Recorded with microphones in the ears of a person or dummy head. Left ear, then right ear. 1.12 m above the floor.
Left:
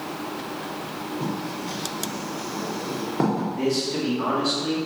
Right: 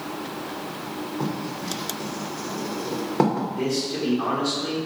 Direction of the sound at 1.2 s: 20° right (ahead or behind).